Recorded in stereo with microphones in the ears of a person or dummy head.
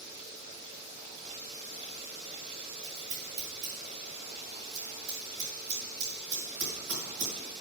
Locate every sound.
2.8 s scissors: 70° right (ahead or behind), 4.5 m